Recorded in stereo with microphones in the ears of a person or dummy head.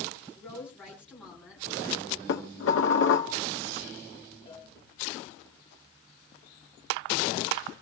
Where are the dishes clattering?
70° left (ahead or behind), 1.5 m.